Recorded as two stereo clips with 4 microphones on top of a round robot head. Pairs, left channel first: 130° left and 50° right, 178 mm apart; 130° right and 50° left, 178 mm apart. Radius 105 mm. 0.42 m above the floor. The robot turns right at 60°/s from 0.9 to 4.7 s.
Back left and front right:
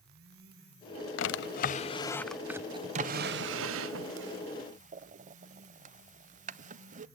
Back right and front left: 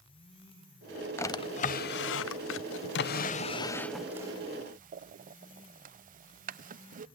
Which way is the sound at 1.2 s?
150° left.